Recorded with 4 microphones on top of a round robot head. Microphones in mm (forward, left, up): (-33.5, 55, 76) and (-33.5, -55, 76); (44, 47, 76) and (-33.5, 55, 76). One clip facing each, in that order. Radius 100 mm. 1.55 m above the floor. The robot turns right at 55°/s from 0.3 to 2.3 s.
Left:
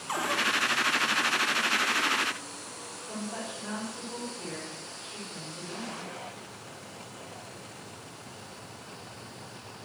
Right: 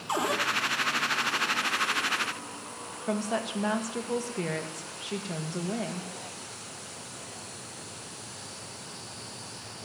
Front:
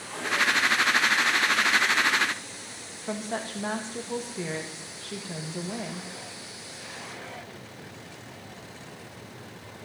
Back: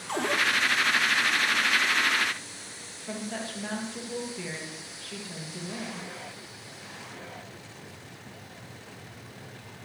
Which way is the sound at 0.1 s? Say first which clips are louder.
Right 3 dB, back 2 dB; 155° right.